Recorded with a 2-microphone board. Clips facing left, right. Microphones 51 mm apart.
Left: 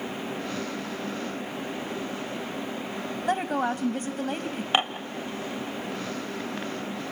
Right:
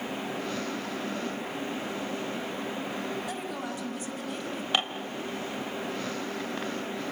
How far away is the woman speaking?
About 1.6 m.